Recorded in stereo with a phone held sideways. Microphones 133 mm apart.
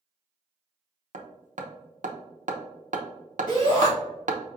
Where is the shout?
75° left (ahead or behind), 1.4 m.